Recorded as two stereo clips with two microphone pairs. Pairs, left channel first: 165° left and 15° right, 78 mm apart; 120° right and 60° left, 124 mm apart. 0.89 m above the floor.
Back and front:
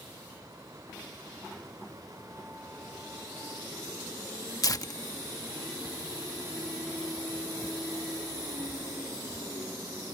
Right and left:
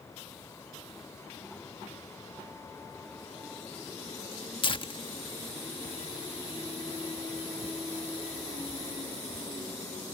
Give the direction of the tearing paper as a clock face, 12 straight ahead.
5 o'clock.